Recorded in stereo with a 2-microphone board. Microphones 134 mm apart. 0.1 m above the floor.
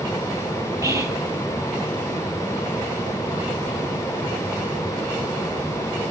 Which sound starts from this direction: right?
Whispering, at 0.8 s.